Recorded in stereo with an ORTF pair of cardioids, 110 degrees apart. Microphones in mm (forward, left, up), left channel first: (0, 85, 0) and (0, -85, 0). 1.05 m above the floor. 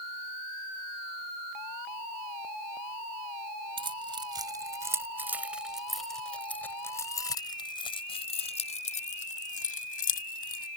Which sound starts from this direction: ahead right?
Keys jangling, at 3.8 s.